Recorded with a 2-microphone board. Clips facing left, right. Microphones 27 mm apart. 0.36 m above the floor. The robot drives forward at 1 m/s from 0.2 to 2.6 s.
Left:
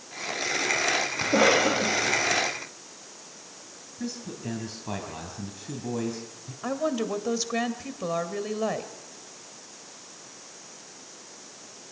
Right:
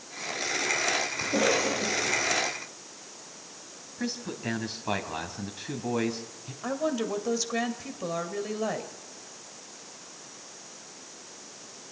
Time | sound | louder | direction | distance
1.2 | a cough | left 6 dB | 55° left (ahead or behind) | 1.7 m
4.0 | a man speaking | right 2 dB | 35° right (ahead or behind) | 2.5 m
6.6 | a woman speaking | left 1 dB | 10° left (ahead or behind) | 1.9 m